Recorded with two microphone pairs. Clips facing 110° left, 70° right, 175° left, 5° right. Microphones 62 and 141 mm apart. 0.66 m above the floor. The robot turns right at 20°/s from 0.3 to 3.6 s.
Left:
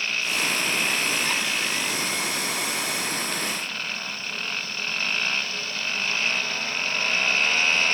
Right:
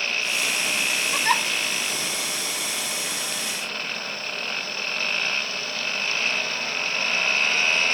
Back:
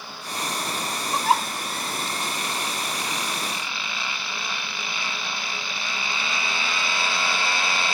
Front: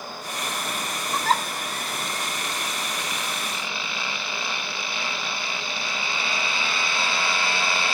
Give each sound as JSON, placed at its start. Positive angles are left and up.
{"t": 1.1, "sound": "a giggle", "azimuth_deg": -115}